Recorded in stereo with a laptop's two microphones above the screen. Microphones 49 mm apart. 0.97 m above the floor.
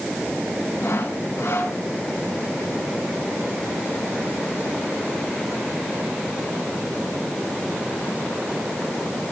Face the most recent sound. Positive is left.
turn(degrees=80)